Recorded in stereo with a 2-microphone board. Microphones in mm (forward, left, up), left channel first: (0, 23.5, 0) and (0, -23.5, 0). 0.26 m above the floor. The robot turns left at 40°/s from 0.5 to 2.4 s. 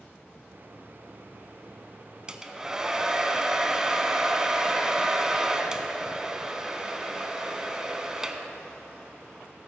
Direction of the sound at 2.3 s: 15° right (ahead or behind).